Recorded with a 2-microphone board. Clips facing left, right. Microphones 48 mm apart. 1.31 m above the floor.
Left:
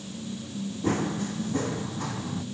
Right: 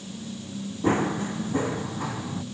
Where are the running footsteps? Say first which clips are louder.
Right 4 dB; 30° right (ahead or behind); by 2.4 s 10° right (ahead or behind).